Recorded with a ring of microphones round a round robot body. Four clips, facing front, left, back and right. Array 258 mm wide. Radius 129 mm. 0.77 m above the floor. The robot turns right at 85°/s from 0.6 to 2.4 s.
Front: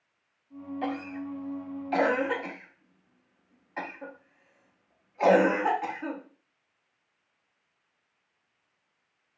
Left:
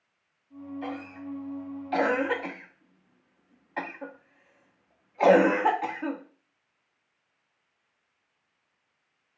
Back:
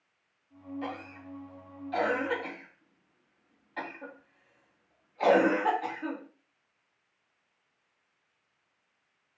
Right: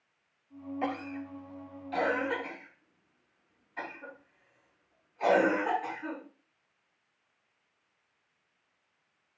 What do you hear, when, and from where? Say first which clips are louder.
0.8 s a cough: right 3 dB, front 9 dB; 60° right, 0.8 m; by 6.2 s 80° left, 0.8 m